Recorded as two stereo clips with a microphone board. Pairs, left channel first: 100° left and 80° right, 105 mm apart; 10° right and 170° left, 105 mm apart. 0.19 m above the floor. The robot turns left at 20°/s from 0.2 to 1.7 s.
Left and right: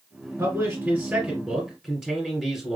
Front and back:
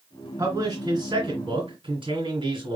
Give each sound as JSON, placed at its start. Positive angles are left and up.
{"t": 0.4, "sound": "a man speaking", "azimuth_deg": -140, "distance_m": 2.0}